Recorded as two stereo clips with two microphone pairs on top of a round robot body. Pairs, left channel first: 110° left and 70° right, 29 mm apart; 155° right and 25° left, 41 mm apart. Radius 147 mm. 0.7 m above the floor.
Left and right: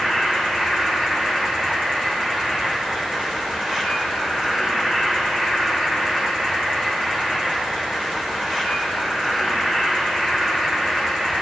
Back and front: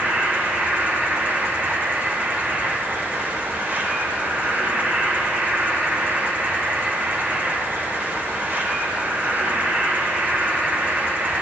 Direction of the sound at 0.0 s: 15° right.